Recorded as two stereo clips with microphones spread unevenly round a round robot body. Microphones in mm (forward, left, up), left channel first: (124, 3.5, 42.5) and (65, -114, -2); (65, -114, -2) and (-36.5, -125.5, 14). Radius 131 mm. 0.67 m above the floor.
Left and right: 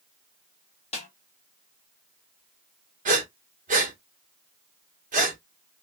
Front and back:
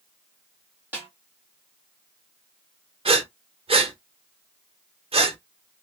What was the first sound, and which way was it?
A snare drum, 105° left.